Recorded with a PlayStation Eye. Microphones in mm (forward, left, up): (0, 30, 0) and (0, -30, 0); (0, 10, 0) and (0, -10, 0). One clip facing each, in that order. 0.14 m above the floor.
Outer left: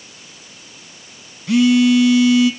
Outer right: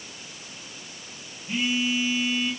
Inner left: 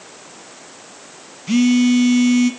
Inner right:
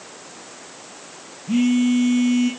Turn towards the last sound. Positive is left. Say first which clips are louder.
# outer left 14 dB, inner left 4 dB
turn(degrees=75)  # may be behind; listen again after turning